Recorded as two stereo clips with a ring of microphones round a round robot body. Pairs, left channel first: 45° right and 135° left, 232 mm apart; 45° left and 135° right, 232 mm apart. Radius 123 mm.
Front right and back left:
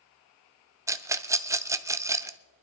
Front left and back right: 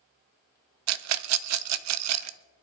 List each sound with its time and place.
0.9 s a rattle: 145° right, 0.6 m